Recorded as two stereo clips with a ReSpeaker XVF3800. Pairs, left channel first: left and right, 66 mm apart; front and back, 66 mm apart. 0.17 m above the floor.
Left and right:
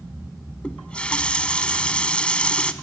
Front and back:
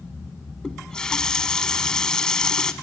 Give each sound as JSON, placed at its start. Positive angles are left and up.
{"t": 0.6, "sound": "a running tap", "azimuth_deg": 55, "distance_m": 0.7}